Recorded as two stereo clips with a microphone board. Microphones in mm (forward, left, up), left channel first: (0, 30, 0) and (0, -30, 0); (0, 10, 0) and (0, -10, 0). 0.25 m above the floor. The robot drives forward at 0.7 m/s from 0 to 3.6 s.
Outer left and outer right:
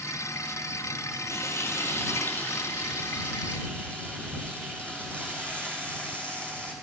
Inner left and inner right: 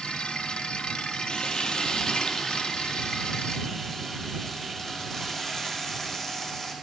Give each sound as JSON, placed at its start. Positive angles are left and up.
{"t": 1.3, "sound": "frying", "side_deg": 55, "distance_m": 1.3}